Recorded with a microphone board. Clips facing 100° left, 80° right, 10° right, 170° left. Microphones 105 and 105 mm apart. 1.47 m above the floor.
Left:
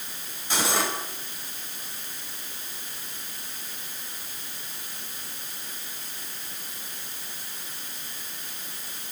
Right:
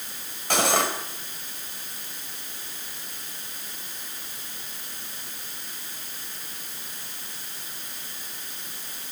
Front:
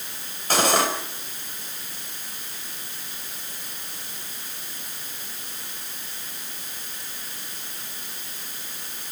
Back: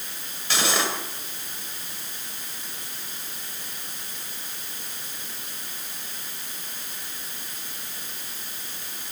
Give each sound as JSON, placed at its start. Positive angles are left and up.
{"t": 0.5, "sound": "cutlery clinking", "azimuth_deg": -55, "distance_m": 4.0}